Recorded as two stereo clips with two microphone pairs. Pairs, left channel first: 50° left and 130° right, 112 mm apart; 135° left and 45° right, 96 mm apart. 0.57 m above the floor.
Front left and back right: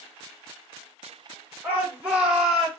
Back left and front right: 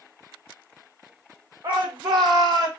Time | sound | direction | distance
1.6 | a shout | 55° right | 1.7 m